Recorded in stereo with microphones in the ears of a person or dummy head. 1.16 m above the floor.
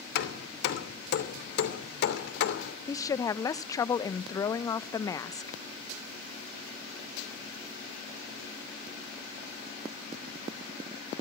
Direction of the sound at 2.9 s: 20° left (ahead or behind).